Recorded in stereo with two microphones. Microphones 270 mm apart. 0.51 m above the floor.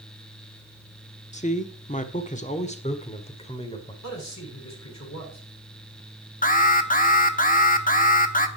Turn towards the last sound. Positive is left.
turn(degrees=30)  # may be behind; listen again after turning